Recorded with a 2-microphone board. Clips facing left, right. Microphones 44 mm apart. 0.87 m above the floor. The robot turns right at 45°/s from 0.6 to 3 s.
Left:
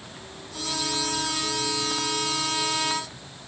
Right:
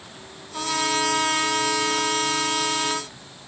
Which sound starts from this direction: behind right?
A trumpet, at 0.5 s.